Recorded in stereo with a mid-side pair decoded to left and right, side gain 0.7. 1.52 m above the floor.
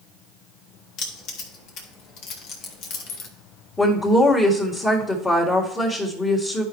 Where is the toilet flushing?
No toilet flushing in this recording.